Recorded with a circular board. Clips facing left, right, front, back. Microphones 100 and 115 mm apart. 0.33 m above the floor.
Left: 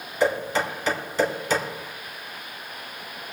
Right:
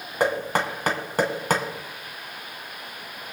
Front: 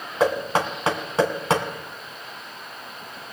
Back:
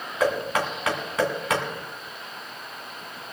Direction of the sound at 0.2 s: 60° right.